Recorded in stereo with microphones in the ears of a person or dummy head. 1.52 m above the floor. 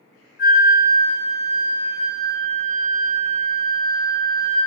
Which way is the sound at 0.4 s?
65° left (ahead or behind).